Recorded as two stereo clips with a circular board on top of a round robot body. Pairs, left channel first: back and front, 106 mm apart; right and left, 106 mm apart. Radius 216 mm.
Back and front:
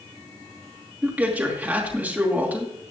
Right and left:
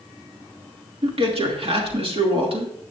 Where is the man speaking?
75° left, 2.5 m.